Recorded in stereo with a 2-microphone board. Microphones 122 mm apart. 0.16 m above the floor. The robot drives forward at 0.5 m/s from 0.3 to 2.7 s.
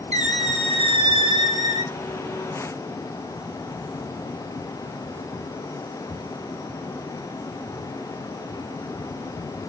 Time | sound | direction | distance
0.1 | a squeak | 70° right (ahead or behind) | 0.6 m